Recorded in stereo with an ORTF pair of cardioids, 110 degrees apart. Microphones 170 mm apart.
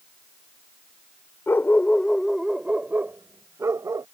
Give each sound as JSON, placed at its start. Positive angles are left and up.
{"t": 1.5, "sound": "a dog barking", "azimuth_deg": 15}